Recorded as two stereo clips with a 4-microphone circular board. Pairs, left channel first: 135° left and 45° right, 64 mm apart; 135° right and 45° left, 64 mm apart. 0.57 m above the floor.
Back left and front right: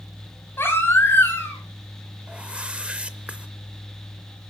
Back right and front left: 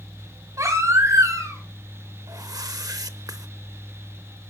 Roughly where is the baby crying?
Left.